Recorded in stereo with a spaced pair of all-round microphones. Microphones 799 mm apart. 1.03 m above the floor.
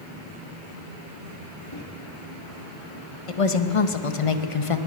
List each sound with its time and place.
1.7 s a microwave: 35° left (ahead or behind), 1.6 m
3.3 s a woman speaking: 45° left (ahead or behind), 0.9 m